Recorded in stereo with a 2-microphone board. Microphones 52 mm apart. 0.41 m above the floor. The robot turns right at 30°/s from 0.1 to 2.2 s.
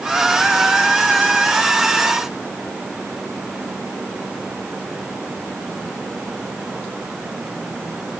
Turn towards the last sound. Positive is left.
No sound to turn to.